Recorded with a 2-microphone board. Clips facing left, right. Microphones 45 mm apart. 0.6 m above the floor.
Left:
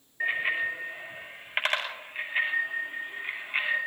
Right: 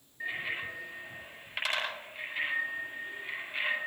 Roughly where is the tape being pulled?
No tape being pulled in this recording.